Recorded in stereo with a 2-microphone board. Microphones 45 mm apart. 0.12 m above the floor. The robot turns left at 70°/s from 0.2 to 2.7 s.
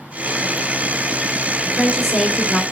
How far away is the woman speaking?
About 1.1 m.